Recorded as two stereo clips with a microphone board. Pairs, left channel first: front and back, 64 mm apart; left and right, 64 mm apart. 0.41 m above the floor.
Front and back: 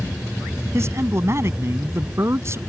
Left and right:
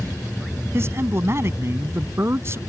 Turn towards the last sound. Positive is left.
turn(degrees=-135)